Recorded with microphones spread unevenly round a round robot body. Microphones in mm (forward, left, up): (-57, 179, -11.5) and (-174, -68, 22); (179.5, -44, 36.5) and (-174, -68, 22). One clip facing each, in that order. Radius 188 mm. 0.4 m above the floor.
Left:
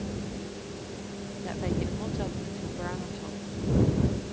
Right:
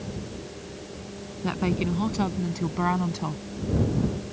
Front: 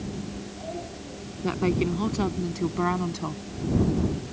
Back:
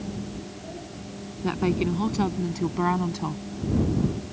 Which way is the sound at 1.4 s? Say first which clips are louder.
Right 5 dB, even; 95° right.